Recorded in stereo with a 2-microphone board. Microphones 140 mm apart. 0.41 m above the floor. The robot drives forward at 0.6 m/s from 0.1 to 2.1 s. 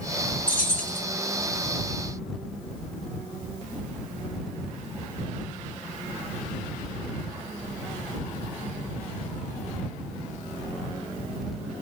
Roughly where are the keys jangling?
Left.